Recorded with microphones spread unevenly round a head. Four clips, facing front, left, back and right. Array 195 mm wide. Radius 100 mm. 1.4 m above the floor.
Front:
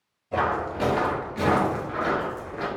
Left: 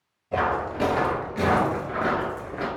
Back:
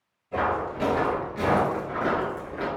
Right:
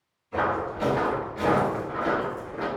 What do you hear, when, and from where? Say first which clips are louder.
0.3 s footsteps: left 2 dB, front 1 dB; 70° left, 2 m; by 2.7 s 150° left, 1.4 m